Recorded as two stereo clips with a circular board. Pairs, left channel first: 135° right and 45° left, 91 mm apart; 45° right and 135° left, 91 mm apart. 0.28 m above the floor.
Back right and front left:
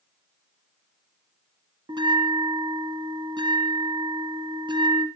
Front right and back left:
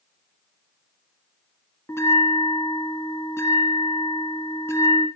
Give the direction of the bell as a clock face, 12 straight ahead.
12 o'clock.